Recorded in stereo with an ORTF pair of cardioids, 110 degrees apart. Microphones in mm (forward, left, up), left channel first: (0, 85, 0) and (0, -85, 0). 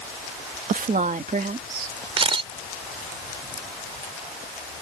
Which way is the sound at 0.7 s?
55° right.